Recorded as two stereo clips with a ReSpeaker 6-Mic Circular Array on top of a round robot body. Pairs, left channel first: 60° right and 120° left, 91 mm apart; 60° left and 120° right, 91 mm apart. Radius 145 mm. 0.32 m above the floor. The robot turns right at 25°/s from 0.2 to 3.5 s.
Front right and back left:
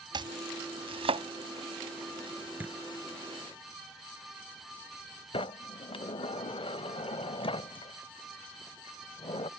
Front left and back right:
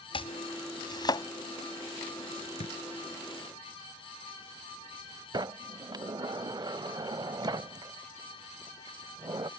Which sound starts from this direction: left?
Chopping, at 0.1 s.